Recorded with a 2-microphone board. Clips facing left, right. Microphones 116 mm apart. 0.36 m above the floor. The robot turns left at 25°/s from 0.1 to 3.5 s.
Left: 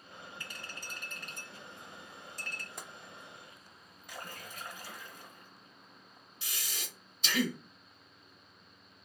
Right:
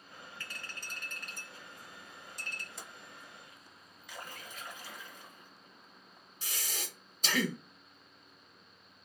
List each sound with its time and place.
0.4 s a clink: 20° left (ahead or behind), 0.9 m; by 2.7 s 25° right (ahead or behind), 0.9 m
2.8 s tapping: 55° left (ahead or behind), 0.5 m; by 2.9 s 60° left (ahead or behind), 0.5 m
4.1 s a splash: 50° left (ahead or behind), 1.2 m
6.4 s breathing: 45° right (ahead or behind), 0.7 m